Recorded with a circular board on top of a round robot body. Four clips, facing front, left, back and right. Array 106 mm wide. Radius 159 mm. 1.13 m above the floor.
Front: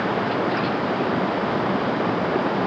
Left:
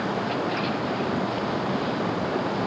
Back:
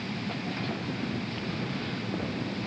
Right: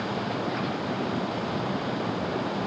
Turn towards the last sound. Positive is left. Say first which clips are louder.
# left 3 dB, front 13 dB
turn(degrees=10)